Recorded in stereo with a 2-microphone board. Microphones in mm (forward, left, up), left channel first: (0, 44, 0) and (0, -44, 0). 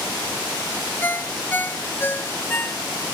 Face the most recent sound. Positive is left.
turn(degrees=25)  # may be behind; listen again after turning